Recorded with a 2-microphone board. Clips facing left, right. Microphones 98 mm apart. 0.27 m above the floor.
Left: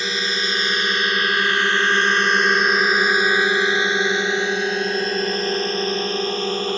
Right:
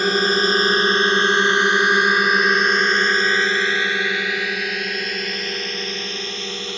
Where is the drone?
50° right (ahead or behind); by 6.8 s 45° left (ahead or behind).